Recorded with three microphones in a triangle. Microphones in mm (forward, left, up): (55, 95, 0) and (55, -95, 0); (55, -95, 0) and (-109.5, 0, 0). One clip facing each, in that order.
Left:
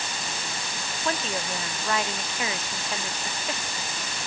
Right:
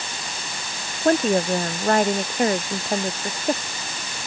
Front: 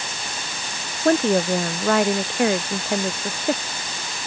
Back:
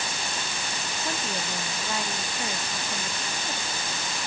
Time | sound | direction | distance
1.1 | a woman speaking | 50° right | ?